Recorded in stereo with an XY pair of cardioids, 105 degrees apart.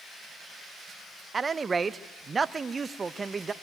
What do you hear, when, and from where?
1.3 s a man speaking: 35° right, 0.7 m